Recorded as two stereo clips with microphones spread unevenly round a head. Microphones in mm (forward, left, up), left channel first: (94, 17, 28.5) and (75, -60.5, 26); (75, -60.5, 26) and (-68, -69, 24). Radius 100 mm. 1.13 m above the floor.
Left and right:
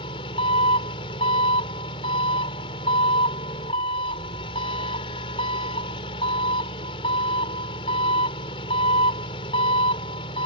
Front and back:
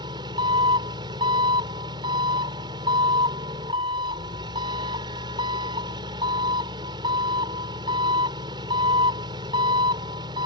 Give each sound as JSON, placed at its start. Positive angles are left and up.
{"t": 0.0, "sound": "an engine running", "azimuth_deg": 115}